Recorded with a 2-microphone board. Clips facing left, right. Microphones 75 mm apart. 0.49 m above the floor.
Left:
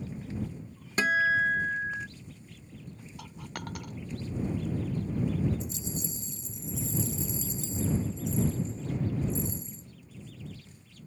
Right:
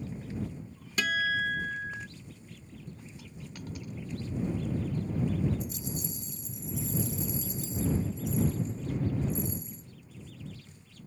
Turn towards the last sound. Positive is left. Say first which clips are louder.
# even
turn(degrees=25)  # may be behind; listen again after turning